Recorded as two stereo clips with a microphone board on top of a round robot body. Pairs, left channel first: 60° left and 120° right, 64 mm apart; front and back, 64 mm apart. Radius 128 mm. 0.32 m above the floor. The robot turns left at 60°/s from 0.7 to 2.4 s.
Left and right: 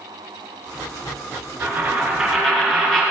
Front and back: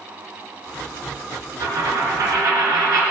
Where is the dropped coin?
170° right, 3.5 m; by 3.0 s 140° left, 3.5 m.